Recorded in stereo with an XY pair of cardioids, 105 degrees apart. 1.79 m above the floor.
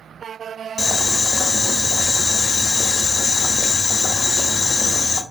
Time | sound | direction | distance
0.8 | boiling | 40° left | 0.8 m